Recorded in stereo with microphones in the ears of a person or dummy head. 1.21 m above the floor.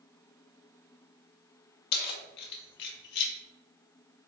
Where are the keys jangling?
65° left (ahead or behind), 0.7 m.